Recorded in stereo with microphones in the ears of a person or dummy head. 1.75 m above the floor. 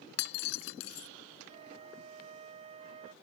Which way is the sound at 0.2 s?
75° left (ahead or behind).